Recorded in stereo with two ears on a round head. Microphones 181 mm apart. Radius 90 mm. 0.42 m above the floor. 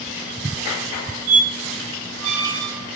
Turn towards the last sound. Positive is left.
turn(degrees=-85)